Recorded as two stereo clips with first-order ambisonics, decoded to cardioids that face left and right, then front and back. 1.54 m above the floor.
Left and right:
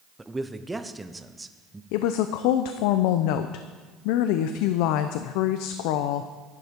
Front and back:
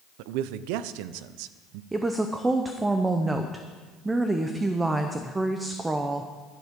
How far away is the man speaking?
About 0.5 m.